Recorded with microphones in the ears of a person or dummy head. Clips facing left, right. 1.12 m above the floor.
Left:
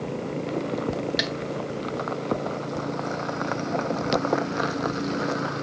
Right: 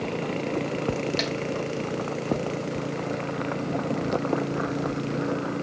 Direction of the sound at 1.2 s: 10° left (ahead or behind).